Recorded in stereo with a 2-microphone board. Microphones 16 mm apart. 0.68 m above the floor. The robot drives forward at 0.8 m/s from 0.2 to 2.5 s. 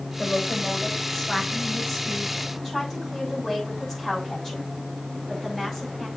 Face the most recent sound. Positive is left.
turn(degrees=20)  # may be behind; listen again after turning